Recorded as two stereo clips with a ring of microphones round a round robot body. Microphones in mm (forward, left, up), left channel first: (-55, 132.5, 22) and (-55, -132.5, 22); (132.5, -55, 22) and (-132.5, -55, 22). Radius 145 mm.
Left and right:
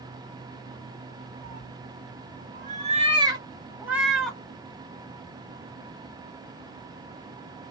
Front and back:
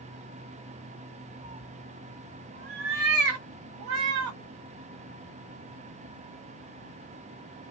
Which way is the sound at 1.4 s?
120° right.